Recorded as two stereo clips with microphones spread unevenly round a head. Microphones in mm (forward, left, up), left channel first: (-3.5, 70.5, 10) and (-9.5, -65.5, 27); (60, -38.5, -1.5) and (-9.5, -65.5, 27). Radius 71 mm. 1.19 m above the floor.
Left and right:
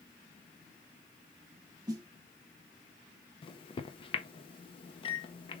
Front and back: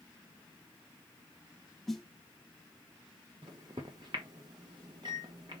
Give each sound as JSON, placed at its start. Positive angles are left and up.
{"t": 1.9, "sound": "a snare drum", "azimuth_deg": -100, "distance_m": 0.7}
{"t": 3.4, "sound": "a microwave", "azimuth_deg": 140, "distance_m": 0.7}